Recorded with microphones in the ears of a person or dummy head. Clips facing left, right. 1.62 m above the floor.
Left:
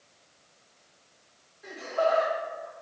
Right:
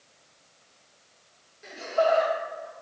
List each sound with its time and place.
1.6 s laughter: 30° right (ahead or behind), 1.8 m